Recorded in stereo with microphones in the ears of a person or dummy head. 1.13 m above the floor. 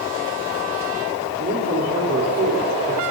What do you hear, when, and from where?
1.4 s a man speaking: 40° right (ahead or behind), 4 m